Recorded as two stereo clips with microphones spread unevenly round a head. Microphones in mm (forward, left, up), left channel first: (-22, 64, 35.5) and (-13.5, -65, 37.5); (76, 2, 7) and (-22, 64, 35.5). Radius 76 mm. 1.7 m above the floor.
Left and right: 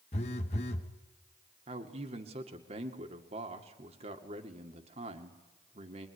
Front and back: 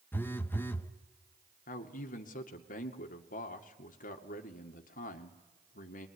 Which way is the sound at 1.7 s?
35° right.